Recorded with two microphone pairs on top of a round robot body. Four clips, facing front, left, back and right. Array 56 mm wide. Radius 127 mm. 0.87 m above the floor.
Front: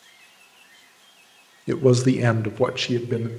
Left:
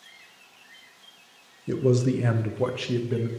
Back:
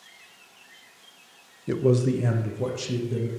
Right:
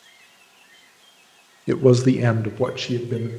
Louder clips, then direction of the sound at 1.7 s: Right 7 dB, front 4 dB; 75° right.